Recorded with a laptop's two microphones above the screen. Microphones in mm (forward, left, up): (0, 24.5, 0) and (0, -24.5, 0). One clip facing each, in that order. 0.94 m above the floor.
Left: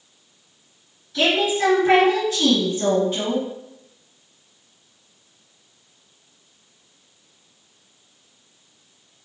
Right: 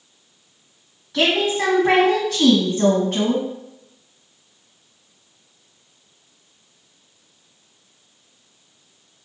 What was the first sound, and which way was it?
A woman speaking, 55° right (ahead or behind).